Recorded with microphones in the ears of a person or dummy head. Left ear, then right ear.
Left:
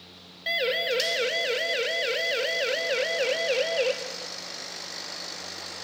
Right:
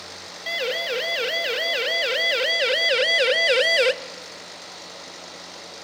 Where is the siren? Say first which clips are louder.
Even; centre (ahead or behind), 2 m; by 3.9 s 60° right (ahead or behind), 1.0 m.